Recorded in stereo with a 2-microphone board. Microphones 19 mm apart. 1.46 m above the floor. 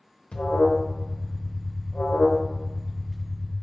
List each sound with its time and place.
0.3 s an alarm: 60° left (ahead or behind), 0.8 m